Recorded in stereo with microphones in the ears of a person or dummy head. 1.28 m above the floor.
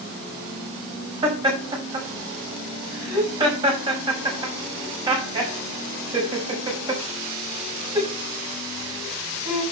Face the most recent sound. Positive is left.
turn(degrees=-30)  # may be behind; listen again after turning